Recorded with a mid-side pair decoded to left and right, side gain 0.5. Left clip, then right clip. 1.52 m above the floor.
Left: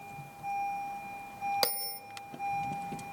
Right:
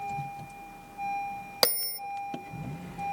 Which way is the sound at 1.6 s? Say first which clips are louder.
Right 6 dB; 45° right.